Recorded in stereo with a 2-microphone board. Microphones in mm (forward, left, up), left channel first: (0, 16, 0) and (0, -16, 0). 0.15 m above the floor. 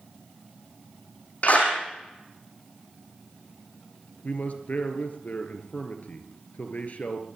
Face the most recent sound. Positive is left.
turn(degrees=50)  # may be behind; listen again after turning